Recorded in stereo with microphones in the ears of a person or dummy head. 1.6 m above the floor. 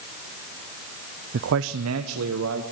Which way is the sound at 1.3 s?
55° right (ahead or behind).